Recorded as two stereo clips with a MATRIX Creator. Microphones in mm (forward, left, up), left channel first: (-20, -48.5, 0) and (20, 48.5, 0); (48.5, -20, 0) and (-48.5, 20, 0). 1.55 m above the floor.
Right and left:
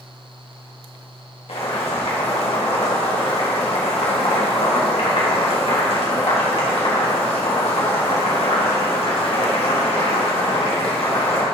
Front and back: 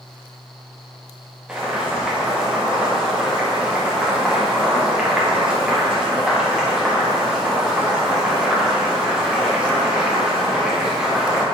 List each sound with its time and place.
1.5 s boiling: 120° right, 2 m